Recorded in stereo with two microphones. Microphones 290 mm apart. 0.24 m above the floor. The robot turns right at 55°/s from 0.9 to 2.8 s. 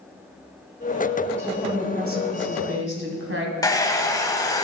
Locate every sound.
1.4 s a woman speaking: 165° right, 2.0 m; by 3.5 s 90° right, 2.0 m
3.6 s a hair dryer: 15° left (ahead or behind), 0.8 m